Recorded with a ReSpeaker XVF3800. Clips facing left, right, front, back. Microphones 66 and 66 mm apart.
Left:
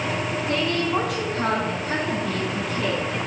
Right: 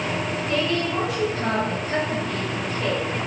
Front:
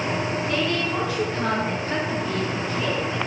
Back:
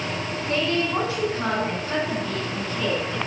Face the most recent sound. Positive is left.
turn(degrees=85)